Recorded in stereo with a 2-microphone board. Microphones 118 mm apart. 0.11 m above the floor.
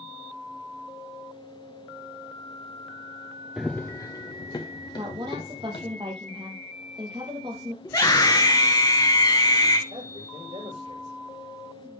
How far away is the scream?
About 1.7 m.